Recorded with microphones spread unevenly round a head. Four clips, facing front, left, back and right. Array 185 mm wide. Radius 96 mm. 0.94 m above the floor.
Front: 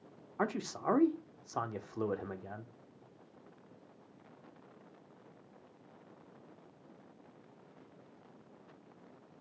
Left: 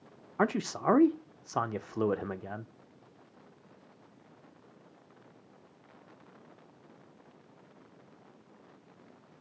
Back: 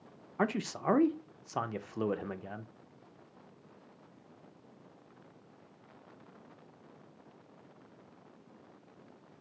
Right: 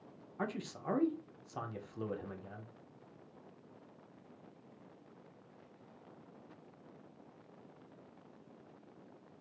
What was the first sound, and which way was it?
A man speaking, 110° left.